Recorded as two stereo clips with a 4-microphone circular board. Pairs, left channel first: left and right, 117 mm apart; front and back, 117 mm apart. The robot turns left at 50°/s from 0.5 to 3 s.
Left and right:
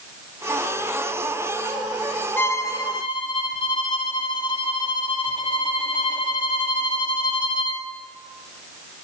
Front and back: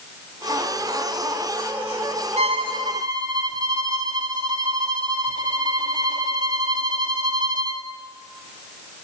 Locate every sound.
2.4 s a violin: 160° left, 0.7 m; by 7.8 s 130° left, 0.7 m